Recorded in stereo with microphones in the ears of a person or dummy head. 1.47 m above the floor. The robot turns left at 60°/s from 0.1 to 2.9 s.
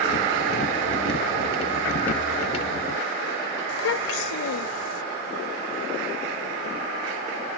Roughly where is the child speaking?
Left.